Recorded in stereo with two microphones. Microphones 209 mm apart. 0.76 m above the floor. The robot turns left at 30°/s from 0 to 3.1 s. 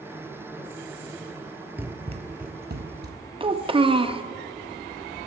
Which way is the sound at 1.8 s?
10° right (ahead or behind).